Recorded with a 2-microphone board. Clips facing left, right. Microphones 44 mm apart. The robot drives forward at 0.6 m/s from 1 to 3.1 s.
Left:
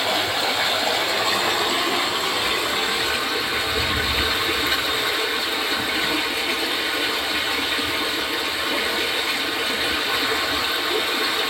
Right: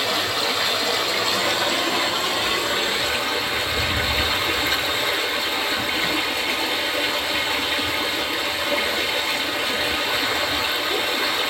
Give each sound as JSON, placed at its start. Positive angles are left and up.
{"t": 0.0, "sound": "running water", "side_deg": 20, "distance_m": 1.6}